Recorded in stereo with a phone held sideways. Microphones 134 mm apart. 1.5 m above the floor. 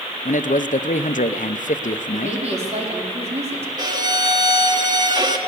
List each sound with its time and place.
0.2 s a man speaking: 75° left (ahead or behind), 0.8 m
2.1 s a woman speaking: 55° right (ahead or behind), 4 m
3.8 s a violin: 30° right (ahead or behind), 1.7 m